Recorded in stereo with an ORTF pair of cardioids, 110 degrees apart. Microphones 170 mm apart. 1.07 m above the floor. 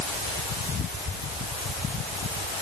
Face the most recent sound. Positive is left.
No sound to turn to.